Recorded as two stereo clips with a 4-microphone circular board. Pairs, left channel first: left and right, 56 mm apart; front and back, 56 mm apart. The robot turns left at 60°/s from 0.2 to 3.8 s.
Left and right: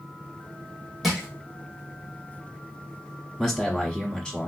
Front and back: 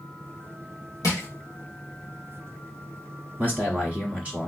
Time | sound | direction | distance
1.0 | crushing | straight ahead | 1.9 m
3.4 | a man speaking | 175° left | 1.1 m